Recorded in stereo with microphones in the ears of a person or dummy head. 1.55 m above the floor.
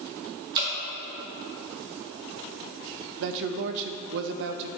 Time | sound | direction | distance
0.6 | dripping | 25° right (ahead or behind) | 3 m
3.2 | a man speaking | 60° right (ahead or behind) | 0.6 m